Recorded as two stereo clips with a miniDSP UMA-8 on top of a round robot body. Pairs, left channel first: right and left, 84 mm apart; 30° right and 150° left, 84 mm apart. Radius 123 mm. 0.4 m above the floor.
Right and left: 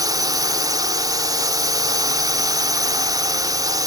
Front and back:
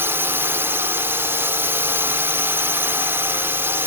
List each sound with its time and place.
0.0 s a drone: 95° left